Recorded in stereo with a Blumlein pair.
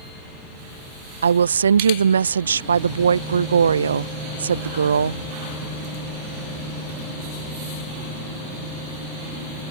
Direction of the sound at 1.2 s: 70° right.